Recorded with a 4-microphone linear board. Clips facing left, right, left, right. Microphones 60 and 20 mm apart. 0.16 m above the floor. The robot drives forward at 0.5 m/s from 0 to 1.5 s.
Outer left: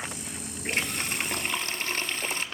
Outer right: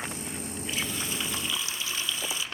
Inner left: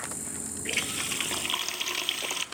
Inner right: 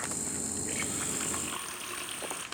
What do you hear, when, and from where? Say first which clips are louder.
0.7 s a running tap: outer left 4 dB, inner left 8 dB; 60° left (ahead or behind), 2 m; by 2.5 s 55° left (ahead or behind), 2 m